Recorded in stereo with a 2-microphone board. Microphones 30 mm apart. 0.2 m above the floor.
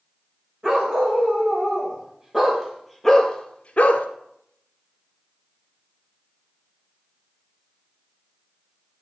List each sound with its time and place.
0.6 s a dog barking: 25° right (ahead or behind), 4 m; by 4.1 s 70° left (ahead or behind), 1.0 m